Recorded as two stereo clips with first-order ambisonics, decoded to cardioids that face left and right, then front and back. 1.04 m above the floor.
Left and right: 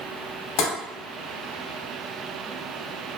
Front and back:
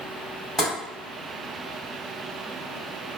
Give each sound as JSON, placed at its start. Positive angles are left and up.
{"t": 0.6, "sound": "tapping", "azimuth_deg": 80, "distance_m": 1.9}